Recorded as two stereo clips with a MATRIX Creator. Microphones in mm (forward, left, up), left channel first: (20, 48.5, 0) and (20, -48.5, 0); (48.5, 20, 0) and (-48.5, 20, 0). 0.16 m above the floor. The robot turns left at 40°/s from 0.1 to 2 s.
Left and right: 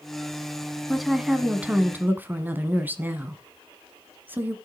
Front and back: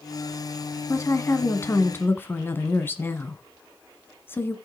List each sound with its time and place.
0.9 s a woman speaking: straight ahead, 1.4 m; by 4.5 s 40° right, 1.4 m